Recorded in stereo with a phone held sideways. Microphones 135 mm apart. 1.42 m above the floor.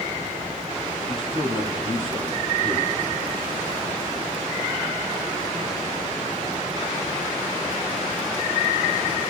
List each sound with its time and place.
1.1 s a man speaking: 45° left (ahead or behind), 2.5 m